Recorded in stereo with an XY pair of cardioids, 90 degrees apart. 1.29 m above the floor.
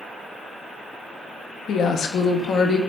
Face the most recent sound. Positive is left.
turn(degrees=65)